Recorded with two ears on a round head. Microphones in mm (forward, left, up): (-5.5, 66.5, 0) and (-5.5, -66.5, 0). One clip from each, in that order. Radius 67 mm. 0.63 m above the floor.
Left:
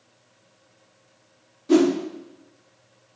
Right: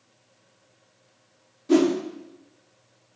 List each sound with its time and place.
1.7 s a whoosh: 5° left (ahead or behind), 0.7 m